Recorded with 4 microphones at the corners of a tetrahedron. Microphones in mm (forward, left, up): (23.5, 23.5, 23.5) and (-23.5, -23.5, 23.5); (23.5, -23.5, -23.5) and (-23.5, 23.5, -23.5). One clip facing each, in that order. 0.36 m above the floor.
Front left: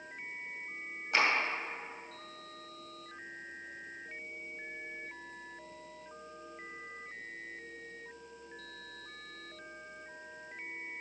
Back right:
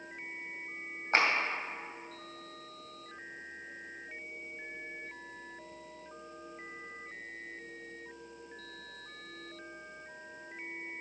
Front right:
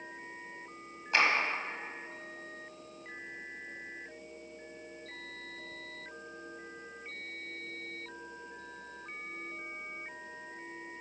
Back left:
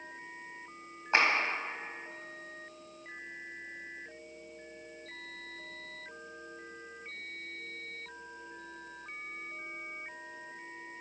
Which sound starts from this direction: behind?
A clap, at 1.1 s.